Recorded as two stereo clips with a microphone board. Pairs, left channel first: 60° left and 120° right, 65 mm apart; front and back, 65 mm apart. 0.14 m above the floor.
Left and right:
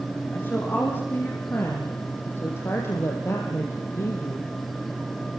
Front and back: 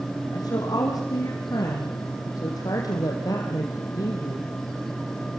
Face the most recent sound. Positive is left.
turn(degrees=25)